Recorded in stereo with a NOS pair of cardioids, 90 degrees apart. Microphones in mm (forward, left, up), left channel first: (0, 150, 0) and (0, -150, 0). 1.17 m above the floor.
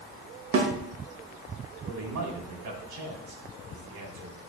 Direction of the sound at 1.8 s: 70° right.